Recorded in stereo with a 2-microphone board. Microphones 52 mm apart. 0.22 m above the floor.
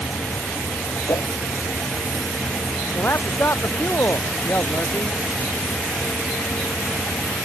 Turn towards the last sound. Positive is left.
turn(degrees=45)  # may be behind; listen again after turning